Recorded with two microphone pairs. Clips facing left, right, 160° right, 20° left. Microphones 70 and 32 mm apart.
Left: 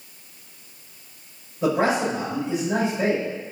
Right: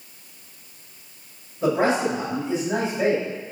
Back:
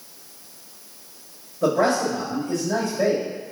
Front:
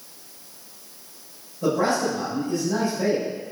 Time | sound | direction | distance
1.6 | a man speaking | straight behind | 2.5 m